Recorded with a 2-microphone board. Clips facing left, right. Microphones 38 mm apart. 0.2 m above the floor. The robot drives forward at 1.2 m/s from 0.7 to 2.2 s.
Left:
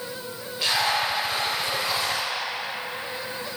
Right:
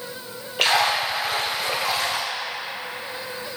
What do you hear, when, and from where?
0.6 s a splash: 75° right (ahead or behind), 4 m; by 2.3 s 70° right (ahead or behind), 4.5 m